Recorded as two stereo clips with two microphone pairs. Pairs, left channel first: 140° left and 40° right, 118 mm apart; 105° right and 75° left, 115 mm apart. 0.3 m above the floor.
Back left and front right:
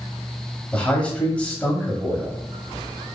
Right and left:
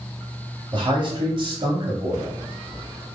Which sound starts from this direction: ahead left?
A man speaking, at 0.7 s.